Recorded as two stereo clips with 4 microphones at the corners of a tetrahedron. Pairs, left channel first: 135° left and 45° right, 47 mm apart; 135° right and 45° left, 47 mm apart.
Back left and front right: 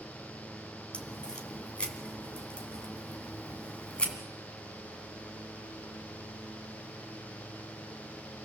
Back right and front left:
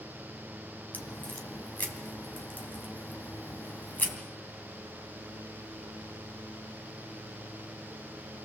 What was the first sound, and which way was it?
A crack, 170° right.